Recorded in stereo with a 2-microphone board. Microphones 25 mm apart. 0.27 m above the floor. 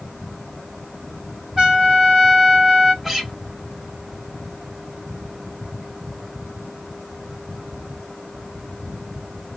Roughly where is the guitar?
Centre.